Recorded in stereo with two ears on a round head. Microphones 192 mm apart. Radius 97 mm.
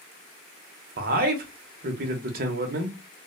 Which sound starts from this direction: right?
A man speaking, at 1.0 s.